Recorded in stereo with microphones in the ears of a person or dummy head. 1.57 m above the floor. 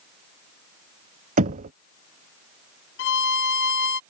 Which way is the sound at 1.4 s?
40° right (ahead or behind).